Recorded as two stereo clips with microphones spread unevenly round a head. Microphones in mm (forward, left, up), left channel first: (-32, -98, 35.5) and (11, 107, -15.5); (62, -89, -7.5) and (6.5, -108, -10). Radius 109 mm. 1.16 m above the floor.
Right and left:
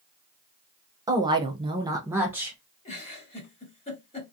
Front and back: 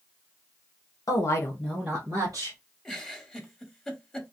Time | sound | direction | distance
1.1 | a woman speaking | 15° left | 0.8 m
2.9 | a giggle | 60° right | 1.0 m